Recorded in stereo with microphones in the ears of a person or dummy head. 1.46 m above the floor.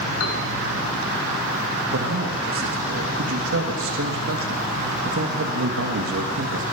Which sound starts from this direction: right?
A man speaking, at 1.9 s.